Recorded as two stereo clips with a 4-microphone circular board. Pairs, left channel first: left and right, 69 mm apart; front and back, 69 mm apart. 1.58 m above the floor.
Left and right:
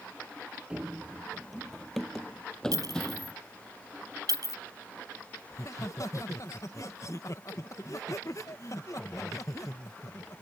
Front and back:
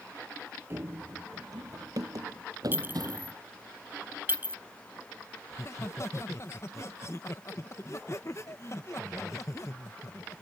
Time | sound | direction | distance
0.7 | running footsteps | 155° right | ?
2.7 | a clink | 120° right | ?
5.5 | laughter | 45° left | ?